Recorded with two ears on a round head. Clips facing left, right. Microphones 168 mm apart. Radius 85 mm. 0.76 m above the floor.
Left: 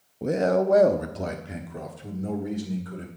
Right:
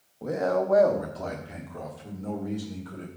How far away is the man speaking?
About 0.5 m.